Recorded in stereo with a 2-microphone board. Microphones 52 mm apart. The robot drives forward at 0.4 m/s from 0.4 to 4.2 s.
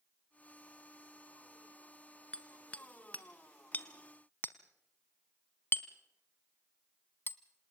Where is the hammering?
20° left (ahead or behind), 1.5 m; by 7.4 s 40° left (ahead or behind), 0.9 m.